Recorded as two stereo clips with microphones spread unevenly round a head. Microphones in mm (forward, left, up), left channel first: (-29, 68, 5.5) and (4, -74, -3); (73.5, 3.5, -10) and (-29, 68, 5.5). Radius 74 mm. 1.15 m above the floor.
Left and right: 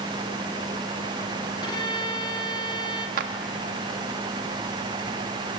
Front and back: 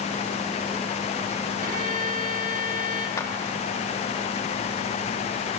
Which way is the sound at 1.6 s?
165° left.